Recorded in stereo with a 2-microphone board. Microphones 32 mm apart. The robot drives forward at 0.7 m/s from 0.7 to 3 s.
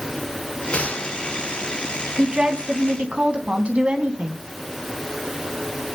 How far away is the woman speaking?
About 3 m.